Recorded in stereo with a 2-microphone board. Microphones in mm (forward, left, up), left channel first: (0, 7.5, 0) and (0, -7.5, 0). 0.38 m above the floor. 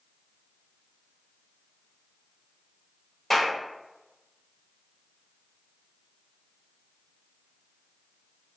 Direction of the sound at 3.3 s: 15° left (ahead or behind).